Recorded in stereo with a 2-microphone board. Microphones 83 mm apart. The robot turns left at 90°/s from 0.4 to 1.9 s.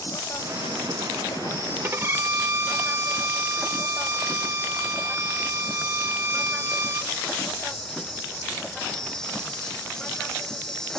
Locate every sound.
0.0 s an insect: 140° left; by 11.0 s 5° left
1.8 s a violin: 25° right (ahead or behind); by 7.1 s 30° right (ahead or behind)